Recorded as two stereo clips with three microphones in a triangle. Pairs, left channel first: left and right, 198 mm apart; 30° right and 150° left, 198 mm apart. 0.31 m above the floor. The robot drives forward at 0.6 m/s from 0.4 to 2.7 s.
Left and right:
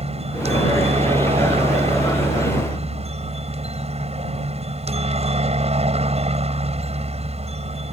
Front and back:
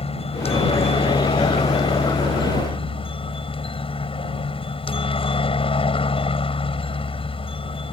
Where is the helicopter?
65° right.